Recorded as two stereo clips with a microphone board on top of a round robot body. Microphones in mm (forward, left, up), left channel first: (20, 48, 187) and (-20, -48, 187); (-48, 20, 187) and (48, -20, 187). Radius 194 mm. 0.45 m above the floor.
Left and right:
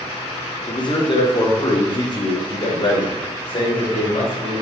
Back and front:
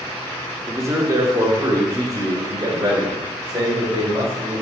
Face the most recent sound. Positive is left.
turn(degrees=30)